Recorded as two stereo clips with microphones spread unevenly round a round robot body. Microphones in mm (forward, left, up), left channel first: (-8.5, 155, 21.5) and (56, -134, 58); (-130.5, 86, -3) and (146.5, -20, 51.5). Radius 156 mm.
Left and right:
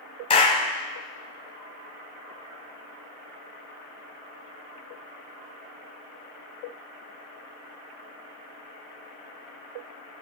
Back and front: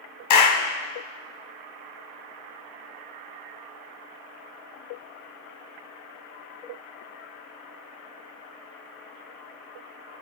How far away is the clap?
About 2 m.